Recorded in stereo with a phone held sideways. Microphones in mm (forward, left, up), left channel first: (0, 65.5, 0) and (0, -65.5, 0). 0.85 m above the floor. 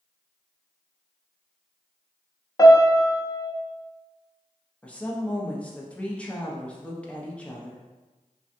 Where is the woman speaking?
10° left (ahead or behind), 0.7 m.